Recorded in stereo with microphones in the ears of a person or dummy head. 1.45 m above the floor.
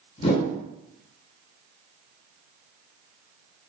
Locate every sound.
0.2 s a whoosh: 35° left (ahead or behind), 0.6 m